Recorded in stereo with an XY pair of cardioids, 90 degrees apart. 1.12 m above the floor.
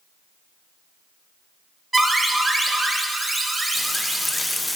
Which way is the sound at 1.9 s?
20° right.